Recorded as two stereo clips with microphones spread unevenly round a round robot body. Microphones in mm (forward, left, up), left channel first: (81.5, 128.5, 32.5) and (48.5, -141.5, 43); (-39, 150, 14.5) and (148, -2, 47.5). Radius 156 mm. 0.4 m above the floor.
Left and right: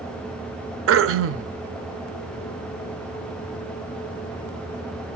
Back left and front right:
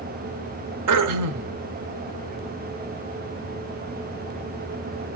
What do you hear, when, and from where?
0.9 s throat clearing: 55° right, 0.7 m